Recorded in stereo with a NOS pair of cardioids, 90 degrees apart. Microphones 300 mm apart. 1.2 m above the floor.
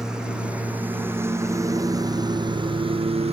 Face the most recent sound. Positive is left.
turn(degrees=-20)